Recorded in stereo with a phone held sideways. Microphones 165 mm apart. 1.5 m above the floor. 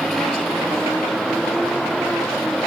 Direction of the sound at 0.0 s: Centre (ahead or behind).